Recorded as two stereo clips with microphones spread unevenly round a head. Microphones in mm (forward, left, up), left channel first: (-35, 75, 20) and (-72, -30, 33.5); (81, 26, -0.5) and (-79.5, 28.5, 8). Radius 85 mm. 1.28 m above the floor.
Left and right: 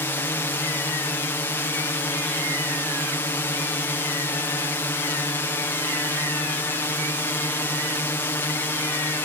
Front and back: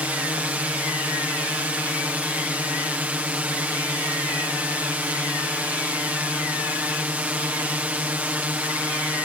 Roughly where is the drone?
Left.